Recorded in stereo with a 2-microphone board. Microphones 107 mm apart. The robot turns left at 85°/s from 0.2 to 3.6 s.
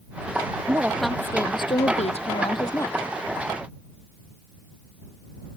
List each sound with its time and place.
0.7 s a woman speaking: 150° right; by 3.0 s 15° left